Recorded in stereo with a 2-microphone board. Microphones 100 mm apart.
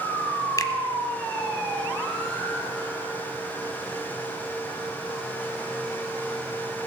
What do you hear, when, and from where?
0.6 s a finger snap: 35° left (ahead or behind), 1.1 m